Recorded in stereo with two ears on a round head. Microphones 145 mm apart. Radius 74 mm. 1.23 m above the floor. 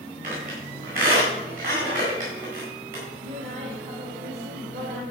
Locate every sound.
0.2 s a squeak: 50° right (ahead or behind), 7 m
3.2 s a woman speaking: 55° right (ahead or behind), 3 m